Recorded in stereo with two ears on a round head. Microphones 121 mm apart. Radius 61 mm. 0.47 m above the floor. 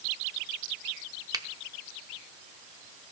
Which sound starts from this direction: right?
A finger snap, at 1.3 s.